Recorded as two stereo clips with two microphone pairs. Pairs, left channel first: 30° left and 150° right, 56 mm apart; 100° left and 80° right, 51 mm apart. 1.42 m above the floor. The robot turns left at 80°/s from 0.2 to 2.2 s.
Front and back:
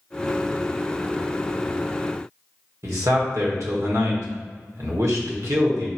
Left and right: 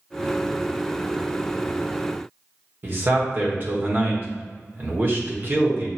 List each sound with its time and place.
2.8 s a man speaking: 130° right, 1.2 m